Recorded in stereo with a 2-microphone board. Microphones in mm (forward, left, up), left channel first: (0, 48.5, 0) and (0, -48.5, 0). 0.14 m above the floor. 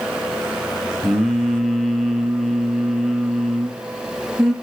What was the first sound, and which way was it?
Singing, centre (ahead or behind).